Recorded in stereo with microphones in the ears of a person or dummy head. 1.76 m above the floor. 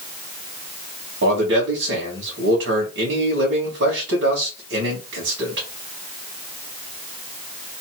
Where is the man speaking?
60° right (ahead or behind), 2 m.